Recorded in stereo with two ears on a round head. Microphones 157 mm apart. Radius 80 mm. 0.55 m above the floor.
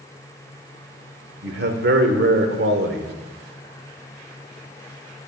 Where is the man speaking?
60° right (ahead or behind), 1.3 m.